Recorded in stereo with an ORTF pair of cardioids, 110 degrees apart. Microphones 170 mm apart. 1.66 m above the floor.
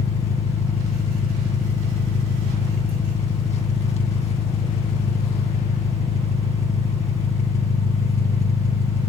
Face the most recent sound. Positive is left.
turn(degrees=40)